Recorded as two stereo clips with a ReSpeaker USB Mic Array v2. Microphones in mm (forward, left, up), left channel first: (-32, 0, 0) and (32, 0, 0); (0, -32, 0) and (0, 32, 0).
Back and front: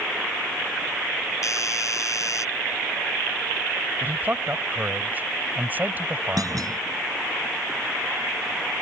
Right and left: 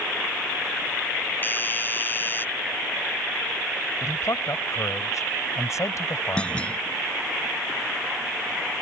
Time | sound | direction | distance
1.4 | a doorbell | 145° right | ?
4.0 | a man speaking | 60° right | ?
6.4 | a clunk | 20° right | ?